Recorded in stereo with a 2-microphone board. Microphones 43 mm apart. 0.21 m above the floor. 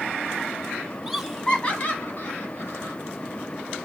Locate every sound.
1.1 s laughter: 10° right (ahead or behind), 1.3 m; by 3.0 s 65° left (ahead or behind), 2.5 m